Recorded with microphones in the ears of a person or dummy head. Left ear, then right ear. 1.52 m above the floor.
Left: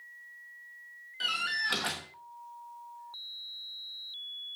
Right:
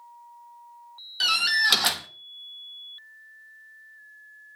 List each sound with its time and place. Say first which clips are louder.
1.2 s a door slam: right 9 dB; 35° right (ahead or behind), 1.0 m